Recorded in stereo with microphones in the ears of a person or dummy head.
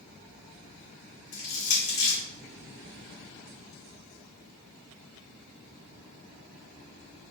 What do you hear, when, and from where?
1.3 s crushing: 55° left (ahead or behind), 2 m